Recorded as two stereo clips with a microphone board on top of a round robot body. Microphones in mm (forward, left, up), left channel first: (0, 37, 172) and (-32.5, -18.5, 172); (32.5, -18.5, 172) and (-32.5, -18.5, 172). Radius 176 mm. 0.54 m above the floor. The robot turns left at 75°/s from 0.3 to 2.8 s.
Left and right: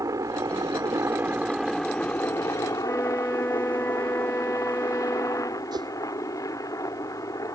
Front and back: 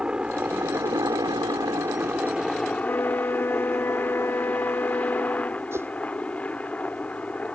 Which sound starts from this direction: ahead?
A flute, at 2.8 s.